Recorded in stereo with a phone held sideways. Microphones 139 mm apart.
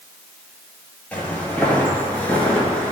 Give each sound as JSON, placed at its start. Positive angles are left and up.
{"t": 1.1, "sound": "footsteps", "side_deg": 10, "distance_m": 2.0}